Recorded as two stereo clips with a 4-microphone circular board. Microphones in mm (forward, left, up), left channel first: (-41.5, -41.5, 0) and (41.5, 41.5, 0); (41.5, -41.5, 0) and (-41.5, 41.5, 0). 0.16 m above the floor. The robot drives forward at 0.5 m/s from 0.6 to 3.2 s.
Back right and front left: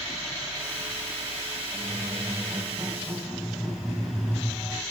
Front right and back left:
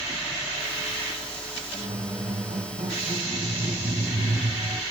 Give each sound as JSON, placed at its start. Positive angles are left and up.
{"t": 1.7, "sound": "a squeak", "azimuth_deg": 110, "distance_m": 4.0}